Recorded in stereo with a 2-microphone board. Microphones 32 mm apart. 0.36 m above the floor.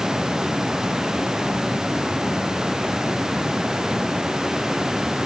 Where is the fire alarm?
No fire alarm in this recording.